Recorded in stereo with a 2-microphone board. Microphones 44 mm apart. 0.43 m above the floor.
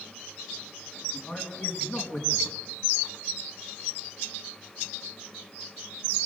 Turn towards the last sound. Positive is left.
turn(degrees=45)  # may be behind; listen again after turning